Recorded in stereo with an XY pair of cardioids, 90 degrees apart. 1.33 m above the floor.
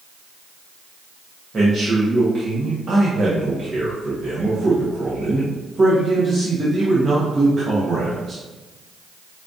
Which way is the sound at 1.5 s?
35° right.